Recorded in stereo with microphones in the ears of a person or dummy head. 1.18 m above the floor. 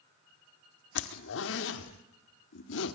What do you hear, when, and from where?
0.9 s a zipper: 70° left (ahead or behind), 1.7 m